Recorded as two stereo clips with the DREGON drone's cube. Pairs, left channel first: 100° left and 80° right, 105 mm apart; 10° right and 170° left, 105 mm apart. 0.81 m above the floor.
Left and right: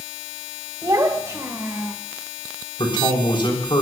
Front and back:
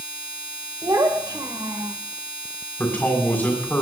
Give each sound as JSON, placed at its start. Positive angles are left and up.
{"t": 0.8, "sound": "a child speaking", "azimuth_deg": -135, "distance_m": 2.5}
{"t": 2.8, "sound": "a man speaking", "azimuth_deg": 60, "distance_m": 5.5}